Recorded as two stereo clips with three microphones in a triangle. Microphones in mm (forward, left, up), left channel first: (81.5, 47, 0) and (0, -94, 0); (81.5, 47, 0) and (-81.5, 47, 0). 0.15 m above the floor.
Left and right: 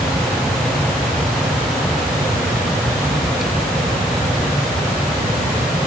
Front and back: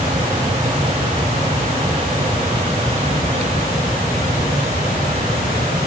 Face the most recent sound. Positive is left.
No sound to turn to.